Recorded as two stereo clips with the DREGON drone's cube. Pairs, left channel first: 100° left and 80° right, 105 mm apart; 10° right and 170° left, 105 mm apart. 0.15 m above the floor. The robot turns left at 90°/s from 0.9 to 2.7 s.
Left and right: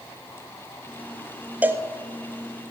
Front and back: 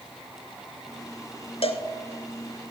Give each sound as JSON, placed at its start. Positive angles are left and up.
{"t": 1.6, "sound": "a cowbell", "azimuth_deg": -5, "distance_m": 0.8}